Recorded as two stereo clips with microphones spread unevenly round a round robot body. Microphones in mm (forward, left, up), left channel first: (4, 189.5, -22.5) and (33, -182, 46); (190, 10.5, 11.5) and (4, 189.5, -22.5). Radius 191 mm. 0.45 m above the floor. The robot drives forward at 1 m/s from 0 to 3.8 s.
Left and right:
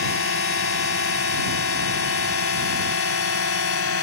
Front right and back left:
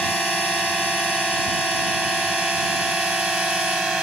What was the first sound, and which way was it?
A drone, 45° left.